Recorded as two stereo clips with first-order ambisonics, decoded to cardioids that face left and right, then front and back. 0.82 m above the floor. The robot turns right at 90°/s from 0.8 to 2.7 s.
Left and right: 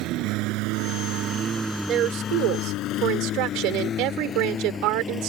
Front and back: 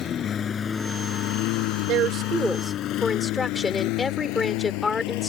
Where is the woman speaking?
145° right; by 5.3 s 70° right.